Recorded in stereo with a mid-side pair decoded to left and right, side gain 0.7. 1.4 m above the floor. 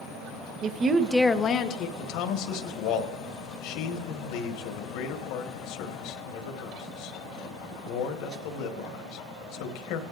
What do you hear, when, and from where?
0.6 s a woman speaking: 45° right, 1.1 m; by 1.9 s 60° left, 1.2 m
2.0 s a man speaking: 70° left, 1.4 m